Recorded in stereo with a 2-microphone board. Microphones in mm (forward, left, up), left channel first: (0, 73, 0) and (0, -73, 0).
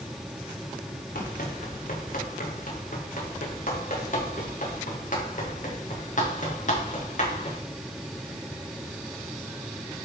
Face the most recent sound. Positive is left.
turn(degrees=55)  # may be behind; listen again after turning